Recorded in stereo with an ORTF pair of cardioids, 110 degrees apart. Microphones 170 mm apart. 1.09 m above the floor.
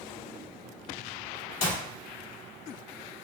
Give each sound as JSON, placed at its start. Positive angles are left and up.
{"t": 1.6, "sound": "a clap", "azimuth_deg": 65, "distance_m": 1.6}